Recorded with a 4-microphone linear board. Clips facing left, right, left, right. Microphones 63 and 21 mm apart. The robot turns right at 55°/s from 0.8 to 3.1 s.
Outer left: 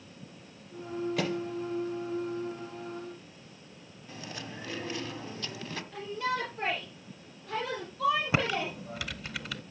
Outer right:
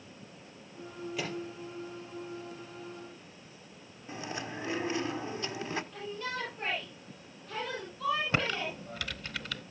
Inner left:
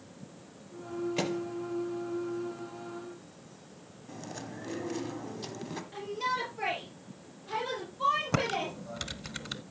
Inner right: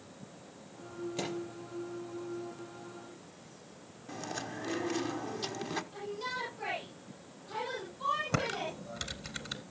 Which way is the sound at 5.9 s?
75° left (ahead or behind).